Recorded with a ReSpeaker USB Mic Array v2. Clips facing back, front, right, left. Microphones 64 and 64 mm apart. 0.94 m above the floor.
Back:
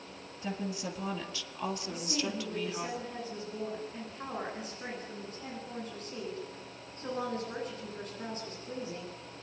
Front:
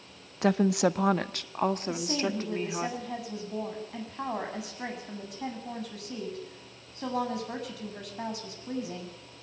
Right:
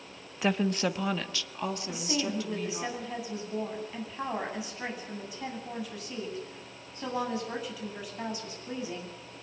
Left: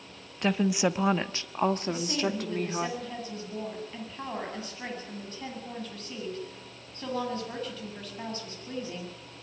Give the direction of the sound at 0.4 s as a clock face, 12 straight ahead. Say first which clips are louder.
Front 13 dB, left 2 dB; 12 o'clock.